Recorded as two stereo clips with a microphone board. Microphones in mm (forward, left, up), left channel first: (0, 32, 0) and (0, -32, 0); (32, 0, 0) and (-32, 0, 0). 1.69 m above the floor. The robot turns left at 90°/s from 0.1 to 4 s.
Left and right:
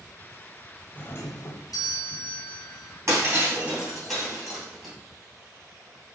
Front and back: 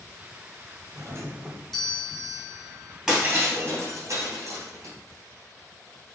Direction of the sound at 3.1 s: 95° right.